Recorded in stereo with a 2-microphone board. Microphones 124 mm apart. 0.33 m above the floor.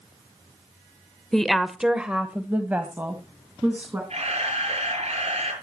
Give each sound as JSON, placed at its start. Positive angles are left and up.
{"t": 1.3, "sound": "a woman speaking", "side_deg": 5, "distance_m": 1.0}
{"t": 4.1, "sound": "a camera shutter", "side_deg": -60, "distance_m": 6.0}